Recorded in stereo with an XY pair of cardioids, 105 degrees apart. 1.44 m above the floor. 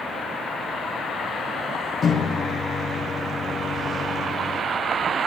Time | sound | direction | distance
2.0 | a microwave | 40° left | 0.6 m